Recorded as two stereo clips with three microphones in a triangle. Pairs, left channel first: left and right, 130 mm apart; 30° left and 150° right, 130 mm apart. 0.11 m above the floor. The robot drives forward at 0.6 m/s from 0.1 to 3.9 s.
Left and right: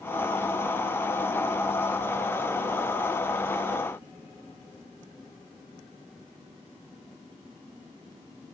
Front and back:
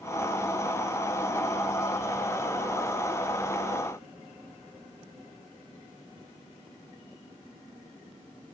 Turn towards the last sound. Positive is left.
No sound to turn to.